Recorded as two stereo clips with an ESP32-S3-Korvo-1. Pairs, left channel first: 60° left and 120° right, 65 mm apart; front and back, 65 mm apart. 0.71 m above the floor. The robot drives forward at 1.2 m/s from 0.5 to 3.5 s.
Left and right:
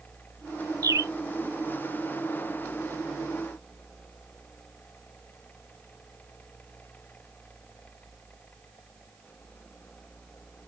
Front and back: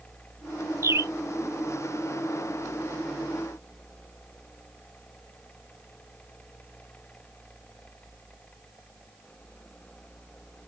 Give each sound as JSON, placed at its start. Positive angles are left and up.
{"t": 0.8, "sound": "a bird", "azimuth_deg": -135}